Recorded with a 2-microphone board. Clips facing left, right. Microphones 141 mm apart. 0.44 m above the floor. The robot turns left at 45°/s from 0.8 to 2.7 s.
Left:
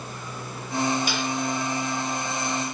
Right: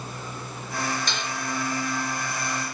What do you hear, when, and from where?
1.1 s dishes clattering: 10° left (ahead or behind), 5 m; by 1.3 s 5° right (ahead or behind), 5 m